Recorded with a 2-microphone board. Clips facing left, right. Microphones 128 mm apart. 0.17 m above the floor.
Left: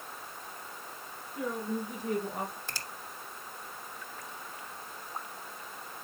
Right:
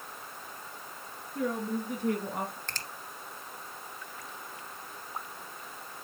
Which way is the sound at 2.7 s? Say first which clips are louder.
Even; 10° left (ahead or behind).